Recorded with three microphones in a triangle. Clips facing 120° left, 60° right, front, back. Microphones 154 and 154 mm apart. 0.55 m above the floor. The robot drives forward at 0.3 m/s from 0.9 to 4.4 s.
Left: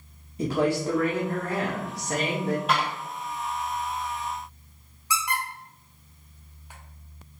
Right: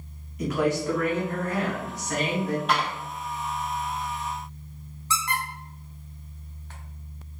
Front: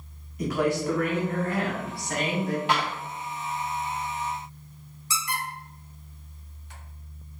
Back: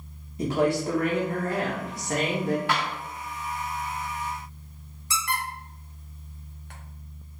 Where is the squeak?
165° right, 0.6 m.